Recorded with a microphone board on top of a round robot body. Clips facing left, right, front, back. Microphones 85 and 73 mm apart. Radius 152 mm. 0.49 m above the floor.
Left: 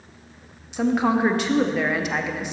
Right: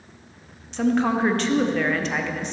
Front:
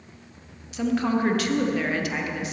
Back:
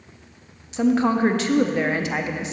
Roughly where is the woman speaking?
Behind.